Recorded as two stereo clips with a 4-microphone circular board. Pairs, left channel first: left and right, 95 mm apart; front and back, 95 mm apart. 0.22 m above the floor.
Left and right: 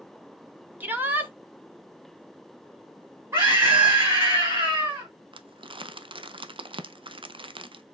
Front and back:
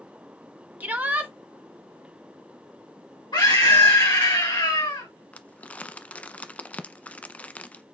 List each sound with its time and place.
0.8 s a shout: 135° right, 1.2 m
3.3 s a scream: 30° right, 3 m
5.3 s crumpling: 75° right, 0.6 m